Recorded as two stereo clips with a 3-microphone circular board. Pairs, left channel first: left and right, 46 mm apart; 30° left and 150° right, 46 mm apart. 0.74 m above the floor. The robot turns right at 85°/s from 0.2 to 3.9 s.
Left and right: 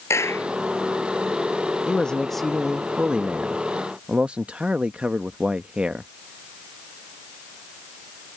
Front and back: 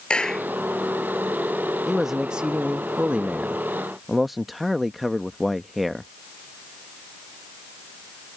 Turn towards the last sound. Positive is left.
turn(degrees=-65)